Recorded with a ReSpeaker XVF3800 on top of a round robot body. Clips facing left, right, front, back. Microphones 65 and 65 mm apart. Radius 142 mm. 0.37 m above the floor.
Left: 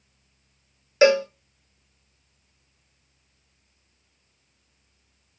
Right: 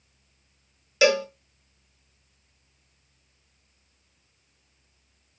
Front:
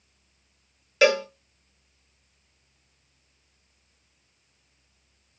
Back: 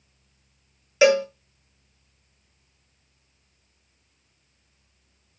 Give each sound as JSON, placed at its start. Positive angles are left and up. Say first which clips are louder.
{"t": 1.0, "sound": "a cowbell", "louder": "left 4 dB, back 3 dB", "azimuth_deg": 105, "distance_m": 1.1}